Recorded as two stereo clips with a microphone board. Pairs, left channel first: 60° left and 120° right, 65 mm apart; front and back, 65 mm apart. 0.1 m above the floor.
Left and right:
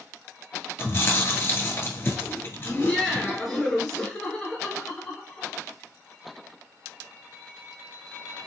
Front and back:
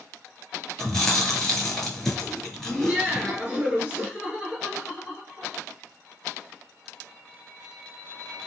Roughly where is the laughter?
Behind left.